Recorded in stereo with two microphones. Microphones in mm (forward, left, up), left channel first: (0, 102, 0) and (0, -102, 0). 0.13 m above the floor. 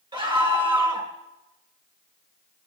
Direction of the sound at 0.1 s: 25° right (ahead or behind).